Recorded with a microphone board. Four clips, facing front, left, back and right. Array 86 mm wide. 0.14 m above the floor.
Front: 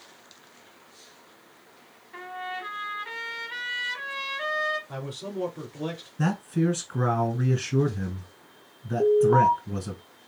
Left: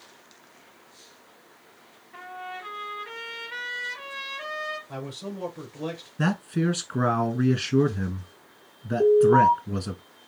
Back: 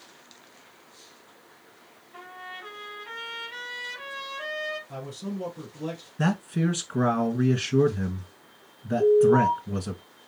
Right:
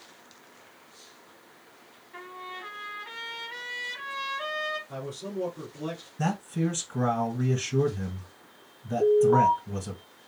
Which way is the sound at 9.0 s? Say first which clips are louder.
Left 3 dB, back 1 dB; 10° left.